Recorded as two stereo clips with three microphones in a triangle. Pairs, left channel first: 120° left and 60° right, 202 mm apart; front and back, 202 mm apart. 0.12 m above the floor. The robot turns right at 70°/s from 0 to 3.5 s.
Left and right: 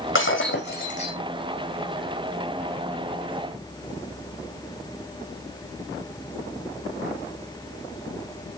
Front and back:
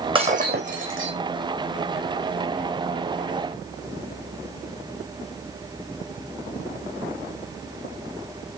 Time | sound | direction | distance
0.1 | breaking glass | 115° left | 4.5 m